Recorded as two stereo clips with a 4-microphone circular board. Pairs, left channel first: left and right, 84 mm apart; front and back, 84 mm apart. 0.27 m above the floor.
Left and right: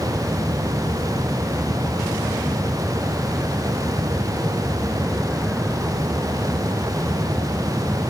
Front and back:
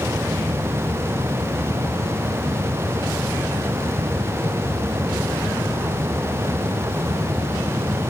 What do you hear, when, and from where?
Only background noise.